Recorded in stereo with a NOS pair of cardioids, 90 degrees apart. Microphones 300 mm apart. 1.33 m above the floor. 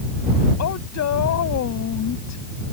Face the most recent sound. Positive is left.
turn(degrees=60)